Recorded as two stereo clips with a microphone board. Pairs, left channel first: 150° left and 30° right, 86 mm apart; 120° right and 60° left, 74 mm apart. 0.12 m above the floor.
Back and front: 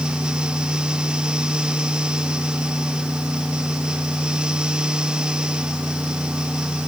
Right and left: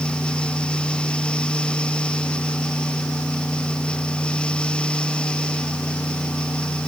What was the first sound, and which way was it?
Only background noise.